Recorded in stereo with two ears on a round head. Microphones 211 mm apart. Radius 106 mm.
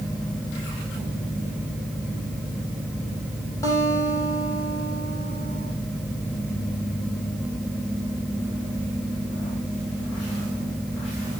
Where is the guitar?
15° left (ahead or behind), 10 m.